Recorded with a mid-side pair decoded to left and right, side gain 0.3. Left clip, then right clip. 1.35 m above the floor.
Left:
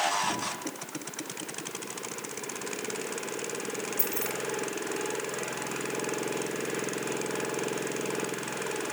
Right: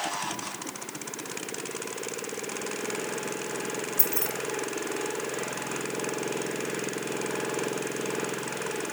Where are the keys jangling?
50° right, 1.3 m.